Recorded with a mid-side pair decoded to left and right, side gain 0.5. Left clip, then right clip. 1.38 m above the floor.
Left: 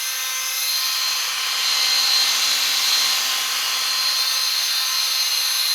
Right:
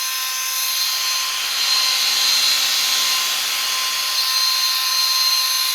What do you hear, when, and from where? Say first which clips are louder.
0.0 s a machine running: right 2 dB; 65° right, 1.1 m